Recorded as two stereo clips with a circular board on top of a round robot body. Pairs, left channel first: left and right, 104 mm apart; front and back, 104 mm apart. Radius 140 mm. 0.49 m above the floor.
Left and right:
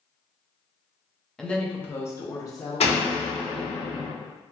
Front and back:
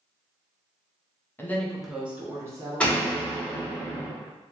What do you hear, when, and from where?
1.4 s a woman speaking: 15° left, 0.7 m; by 3.3 s 140° left, 1.3 m
2.8 s a door slam: 80° left, 1.0 m